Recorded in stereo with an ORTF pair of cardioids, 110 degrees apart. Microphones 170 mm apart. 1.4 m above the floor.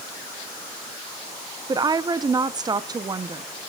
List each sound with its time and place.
1.7 s a woman speaking: 20° right, 0.9 m